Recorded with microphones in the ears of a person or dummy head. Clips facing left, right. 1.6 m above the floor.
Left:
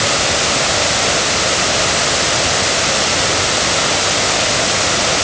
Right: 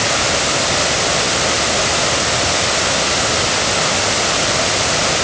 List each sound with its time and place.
Only background noise.